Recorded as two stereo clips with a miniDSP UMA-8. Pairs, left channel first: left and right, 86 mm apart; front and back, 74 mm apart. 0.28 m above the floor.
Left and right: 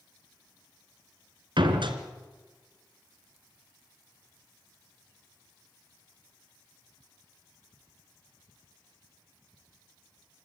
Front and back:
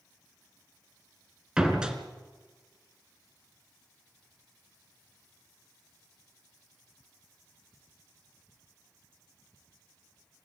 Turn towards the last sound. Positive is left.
turn(degrees=-105)